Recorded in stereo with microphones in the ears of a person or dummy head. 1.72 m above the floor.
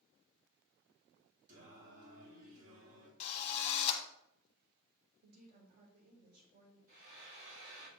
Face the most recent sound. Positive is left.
turn(degrees=-70)  # may be behind; listen again after turning